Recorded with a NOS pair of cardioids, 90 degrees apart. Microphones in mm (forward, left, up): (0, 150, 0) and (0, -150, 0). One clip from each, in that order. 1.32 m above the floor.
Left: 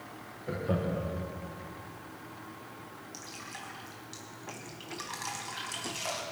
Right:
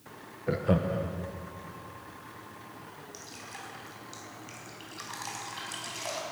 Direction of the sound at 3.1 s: 5° left.